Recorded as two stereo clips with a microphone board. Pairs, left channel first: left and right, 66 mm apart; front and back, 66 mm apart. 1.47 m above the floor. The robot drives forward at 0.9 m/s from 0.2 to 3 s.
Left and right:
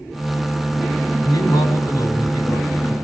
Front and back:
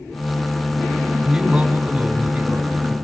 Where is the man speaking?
95° left, 5.5 m; by 3.0 s 110° left, 6 m.